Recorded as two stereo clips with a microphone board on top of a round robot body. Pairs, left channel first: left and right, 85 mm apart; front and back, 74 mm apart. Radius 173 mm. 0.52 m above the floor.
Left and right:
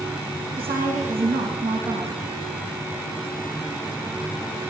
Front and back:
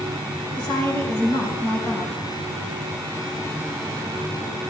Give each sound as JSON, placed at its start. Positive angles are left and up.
{"t": 0.6, "sound": "a woman speaking", "azimuth_deg": -65, "distance_m": 4.5}